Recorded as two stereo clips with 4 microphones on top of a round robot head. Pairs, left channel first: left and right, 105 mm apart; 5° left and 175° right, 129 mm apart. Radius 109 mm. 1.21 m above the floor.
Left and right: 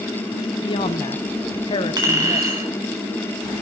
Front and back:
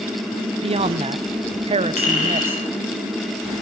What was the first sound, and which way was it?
A man speaking, 140° left.